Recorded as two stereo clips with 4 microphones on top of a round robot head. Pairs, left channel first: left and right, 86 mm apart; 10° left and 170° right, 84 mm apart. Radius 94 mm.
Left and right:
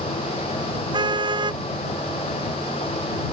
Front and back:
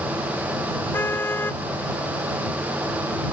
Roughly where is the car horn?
Ahead right.